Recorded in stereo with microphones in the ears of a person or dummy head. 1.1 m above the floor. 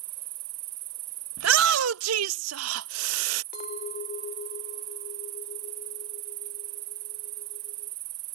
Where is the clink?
50° left (ahead or behind).